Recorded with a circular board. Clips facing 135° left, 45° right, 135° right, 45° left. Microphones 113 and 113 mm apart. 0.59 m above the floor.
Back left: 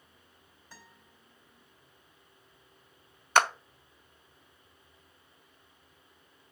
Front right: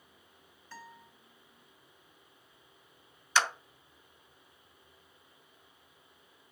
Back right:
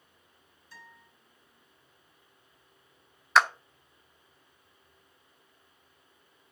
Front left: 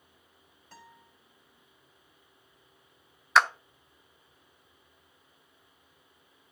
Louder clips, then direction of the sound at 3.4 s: Back left 5 dB, even; 135° left.